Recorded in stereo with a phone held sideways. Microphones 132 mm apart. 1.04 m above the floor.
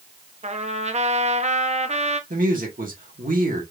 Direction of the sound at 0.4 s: 55° right (ahead or behind).